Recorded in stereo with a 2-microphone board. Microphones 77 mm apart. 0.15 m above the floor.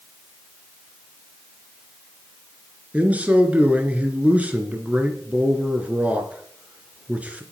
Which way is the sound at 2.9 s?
20° right (ahead or behind).